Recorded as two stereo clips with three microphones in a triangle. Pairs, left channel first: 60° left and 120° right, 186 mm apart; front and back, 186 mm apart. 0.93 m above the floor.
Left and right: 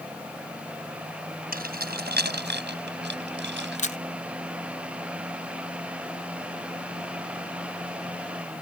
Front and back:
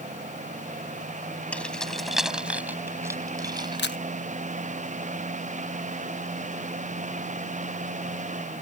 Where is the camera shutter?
10° left.